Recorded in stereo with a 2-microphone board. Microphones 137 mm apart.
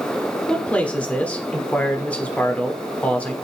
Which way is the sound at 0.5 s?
10° left (ahead or behind).